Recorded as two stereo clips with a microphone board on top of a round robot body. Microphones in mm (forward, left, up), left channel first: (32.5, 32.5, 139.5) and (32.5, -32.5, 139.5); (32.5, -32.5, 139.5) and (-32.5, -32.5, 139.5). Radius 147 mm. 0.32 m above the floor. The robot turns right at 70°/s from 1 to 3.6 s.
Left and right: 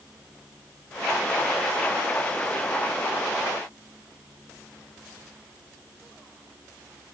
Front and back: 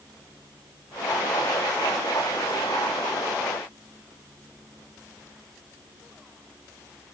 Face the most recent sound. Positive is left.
No sound to turn to.